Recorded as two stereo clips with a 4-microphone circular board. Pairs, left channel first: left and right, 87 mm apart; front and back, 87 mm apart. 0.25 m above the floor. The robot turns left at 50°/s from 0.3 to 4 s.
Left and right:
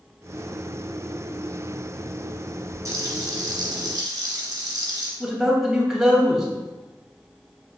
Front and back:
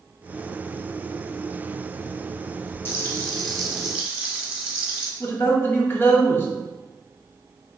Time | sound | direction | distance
2.9 | frying | 45° right | 1.4 m
5.2 | a man speaking | 10° right | 1.1 m